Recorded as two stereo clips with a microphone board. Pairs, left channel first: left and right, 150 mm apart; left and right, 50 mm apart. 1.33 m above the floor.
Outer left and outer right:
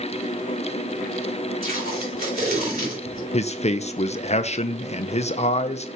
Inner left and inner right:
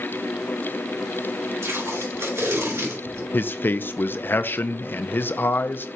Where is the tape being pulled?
75° right (ahead or behind), 3.5 m.